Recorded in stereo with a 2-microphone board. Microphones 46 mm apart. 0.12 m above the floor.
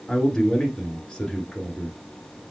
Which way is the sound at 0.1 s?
20° left (ahead or behind).